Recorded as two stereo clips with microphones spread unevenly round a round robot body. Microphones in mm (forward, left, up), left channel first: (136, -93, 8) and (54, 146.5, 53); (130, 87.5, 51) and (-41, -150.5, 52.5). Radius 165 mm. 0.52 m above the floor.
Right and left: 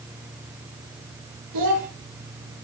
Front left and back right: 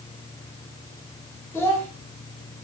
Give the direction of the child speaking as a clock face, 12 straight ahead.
7 o'clock.